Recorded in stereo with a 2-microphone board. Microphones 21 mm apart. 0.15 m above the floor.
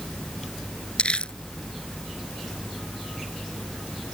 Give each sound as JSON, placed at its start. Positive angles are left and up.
{"t": 1.0, "sound": "crumpling", "side_deg": 60}